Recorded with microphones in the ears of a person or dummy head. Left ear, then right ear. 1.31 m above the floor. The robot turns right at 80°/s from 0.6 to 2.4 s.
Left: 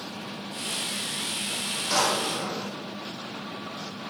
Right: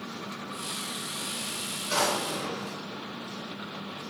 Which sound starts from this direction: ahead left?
A drawer, at 1.9 s.